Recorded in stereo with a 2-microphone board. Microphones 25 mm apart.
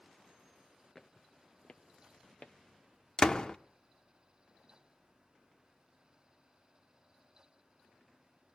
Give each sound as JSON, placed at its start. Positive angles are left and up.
{"t": 0.9, "sound": "footsteps", "side_deg": 10, "distance_m": 0.6}
{"t": 3.2, "sound": "a door slam", "side_deg": 30, "distance_m": 0.6}